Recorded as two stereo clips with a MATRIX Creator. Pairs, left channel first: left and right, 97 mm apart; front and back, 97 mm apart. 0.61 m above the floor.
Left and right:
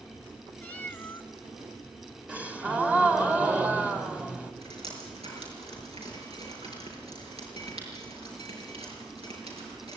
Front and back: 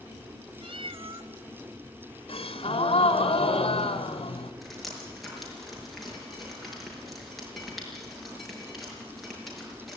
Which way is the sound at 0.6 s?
160° left.